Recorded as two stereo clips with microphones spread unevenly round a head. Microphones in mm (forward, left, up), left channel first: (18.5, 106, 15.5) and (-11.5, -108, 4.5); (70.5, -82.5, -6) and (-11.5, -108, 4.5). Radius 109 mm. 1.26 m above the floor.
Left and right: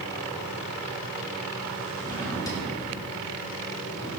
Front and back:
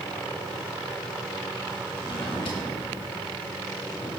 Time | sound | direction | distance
2.0 | a drawer | 10° left | 2.5 m